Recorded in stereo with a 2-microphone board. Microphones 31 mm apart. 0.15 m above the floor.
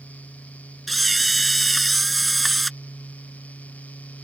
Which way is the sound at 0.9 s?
Centre (ahead or behind).